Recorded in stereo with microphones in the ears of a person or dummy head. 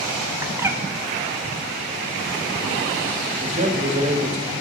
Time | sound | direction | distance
0.4 | a bird | 15° right (ahead or behind) | 1.0 m
3.4 | a man speaking | 45° right (ahead or behind) | 1.4 m